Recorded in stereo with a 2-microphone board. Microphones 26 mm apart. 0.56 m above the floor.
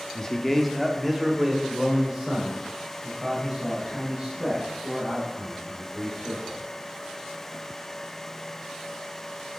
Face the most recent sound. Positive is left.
turn(degrees=-20)  # may be behind; listen again after turning